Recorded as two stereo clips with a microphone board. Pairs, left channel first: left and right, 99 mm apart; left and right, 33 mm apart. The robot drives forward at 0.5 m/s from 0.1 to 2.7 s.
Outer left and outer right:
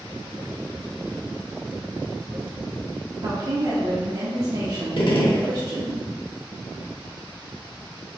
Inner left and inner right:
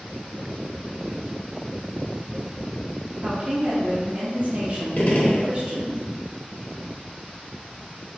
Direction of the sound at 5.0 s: 60° left (ahead or behind).